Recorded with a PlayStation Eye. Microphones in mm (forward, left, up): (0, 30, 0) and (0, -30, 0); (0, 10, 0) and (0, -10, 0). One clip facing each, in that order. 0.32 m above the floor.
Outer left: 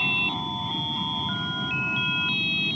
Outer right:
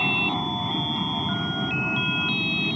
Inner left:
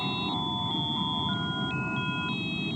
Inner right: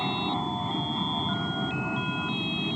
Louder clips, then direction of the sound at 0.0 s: Outer right 3 dB, inner right 2 dB; 30° right (ahead or behind).